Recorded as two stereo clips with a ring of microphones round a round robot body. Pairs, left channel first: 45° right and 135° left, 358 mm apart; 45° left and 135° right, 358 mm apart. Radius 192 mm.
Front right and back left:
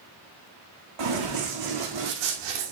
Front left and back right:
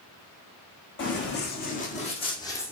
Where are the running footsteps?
105° left, 3 m; by 2.7 s 130° left, 2.0 m.